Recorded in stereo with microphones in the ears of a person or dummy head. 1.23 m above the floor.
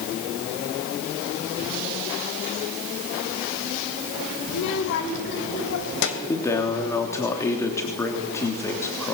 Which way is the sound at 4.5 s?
65° left (ahead or behind).